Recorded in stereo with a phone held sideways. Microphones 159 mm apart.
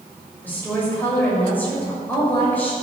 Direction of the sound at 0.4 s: 10° left (ahead or behind).